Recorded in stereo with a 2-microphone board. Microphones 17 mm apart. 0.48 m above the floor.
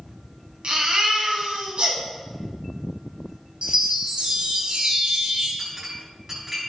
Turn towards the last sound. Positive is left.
turn(degrees=-30)  # may be behind; listen again after turning